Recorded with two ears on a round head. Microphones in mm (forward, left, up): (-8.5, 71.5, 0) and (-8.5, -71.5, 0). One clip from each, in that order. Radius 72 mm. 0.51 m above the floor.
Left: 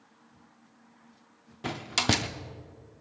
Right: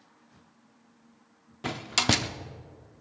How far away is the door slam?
About 0.5 m.